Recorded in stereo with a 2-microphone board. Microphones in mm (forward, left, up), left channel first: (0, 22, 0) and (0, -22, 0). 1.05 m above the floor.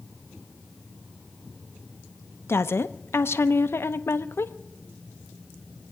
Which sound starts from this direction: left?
A woman speaking, at 2.5 s.